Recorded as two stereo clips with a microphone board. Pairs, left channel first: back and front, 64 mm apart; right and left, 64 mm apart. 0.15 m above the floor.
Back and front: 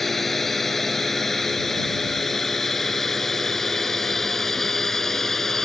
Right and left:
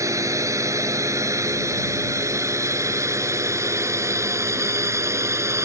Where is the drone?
95° left.